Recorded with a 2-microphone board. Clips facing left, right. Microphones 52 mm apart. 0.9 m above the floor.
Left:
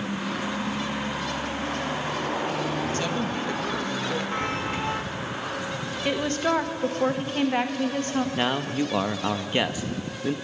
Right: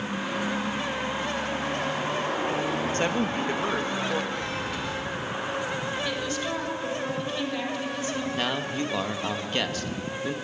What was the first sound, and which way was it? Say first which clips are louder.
A woman speaking: right 1 dB; 35° right (ahead or behind).